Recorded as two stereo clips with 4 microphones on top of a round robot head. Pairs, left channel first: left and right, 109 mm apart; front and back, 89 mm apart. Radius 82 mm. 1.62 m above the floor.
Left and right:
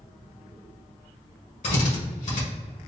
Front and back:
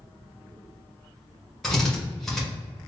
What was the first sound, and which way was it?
A drill, 85° left.